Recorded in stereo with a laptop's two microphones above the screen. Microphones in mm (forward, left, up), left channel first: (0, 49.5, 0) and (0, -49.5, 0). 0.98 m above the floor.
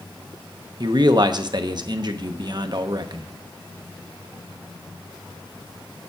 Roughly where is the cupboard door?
No cupboard door in this recording.